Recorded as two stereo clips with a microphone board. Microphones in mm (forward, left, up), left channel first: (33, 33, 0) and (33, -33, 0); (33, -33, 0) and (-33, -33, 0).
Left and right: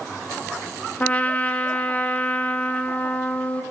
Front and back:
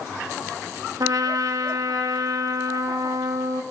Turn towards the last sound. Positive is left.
turn(degrees=155)